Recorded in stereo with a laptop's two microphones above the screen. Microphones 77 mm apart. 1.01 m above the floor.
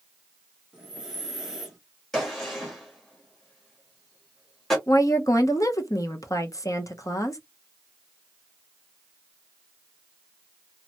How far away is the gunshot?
About 1.2 m.